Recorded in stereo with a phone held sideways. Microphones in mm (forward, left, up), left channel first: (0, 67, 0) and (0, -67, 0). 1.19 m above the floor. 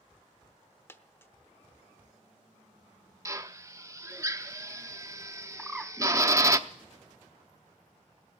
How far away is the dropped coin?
About 0.8 m.